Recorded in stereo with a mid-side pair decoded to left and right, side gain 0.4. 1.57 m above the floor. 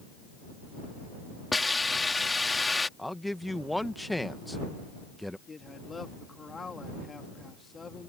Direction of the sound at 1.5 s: 20° left.